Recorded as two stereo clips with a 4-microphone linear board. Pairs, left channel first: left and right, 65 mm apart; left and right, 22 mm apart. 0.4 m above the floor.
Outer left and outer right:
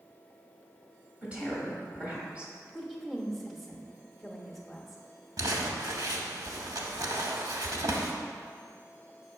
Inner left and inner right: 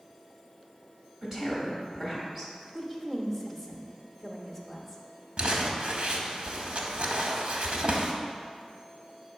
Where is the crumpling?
65° right (ahead or behind), 0.7 m.